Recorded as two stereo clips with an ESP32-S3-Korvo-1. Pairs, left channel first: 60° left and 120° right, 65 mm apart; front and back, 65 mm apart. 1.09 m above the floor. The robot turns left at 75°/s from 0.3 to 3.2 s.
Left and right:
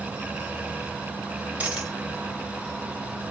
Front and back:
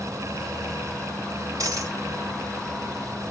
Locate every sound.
1.6 s a dropped coin: 175° left, 1.4 m; by 1.9 s 150° left, 1.4 m